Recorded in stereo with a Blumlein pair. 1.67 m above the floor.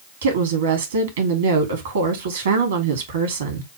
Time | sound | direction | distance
0.2 | a woman speaking | 65° right | 2 m